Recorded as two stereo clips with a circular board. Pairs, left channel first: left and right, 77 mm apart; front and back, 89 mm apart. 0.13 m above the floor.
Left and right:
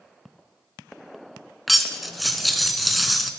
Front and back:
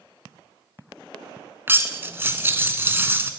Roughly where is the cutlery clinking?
Behind.